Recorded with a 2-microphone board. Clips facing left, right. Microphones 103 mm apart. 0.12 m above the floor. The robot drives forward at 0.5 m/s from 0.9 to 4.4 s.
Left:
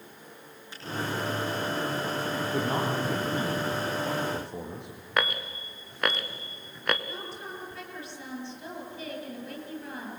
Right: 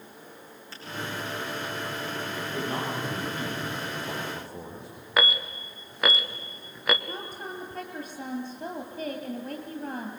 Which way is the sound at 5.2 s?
Centre (ahead or behind).